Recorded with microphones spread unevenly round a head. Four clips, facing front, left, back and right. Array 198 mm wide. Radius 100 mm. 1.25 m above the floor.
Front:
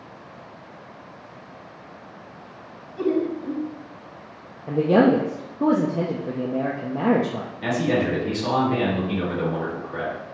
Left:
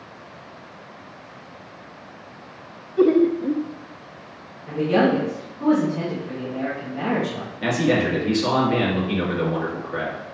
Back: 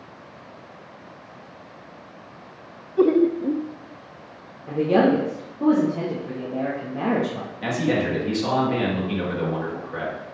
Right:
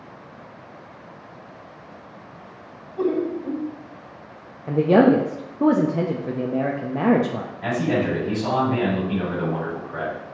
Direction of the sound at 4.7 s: 35° right.